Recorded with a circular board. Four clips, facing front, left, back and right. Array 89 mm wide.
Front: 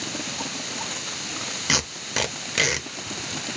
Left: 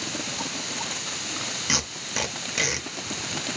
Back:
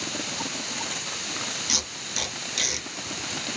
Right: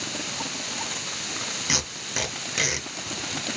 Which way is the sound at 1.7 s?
Straight ahead.